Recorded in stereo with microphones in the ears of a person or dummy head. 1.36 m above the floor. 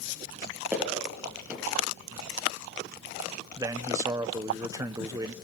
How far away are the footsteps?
About 7 m.